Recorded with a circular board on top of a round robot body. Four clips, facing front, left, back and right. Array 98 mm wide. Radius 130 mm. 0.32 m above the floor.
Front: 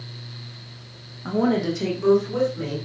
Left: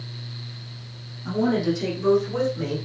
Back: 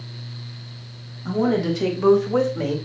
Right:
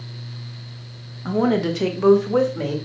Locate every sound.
1.2 s a woman speaking: 60° right, 1.4 m; by 2.8 s 130° right, 2.5 m